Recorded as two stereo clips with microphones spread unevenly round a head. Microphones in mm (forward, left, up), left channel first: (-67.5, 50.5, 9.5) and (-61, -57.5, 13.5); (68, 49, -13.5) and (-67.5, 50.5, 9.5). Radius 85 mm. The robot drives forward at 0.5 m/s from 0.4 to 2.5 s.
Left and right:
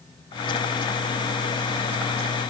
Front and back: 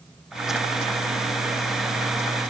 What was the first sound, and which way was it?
Only background noise.